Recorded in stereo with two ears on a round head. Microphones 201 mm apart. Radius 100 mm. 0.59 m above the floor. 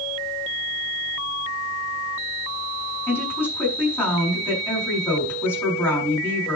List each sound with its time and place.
3.1 s a woman speaking: 10° left (ahead or behind), 6.5 m